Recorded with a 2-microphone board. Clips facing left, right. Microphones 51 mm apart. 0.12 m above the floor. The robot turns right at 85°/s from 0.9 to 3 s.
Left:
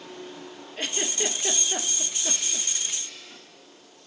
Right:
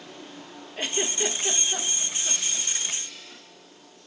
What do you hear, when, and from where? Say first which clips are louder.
0.8 s a giggle: right 2 dB; 5° right (ahead or behind), 0.6 m; by 2.7 s 35° left (ahead or behind), 0.6 m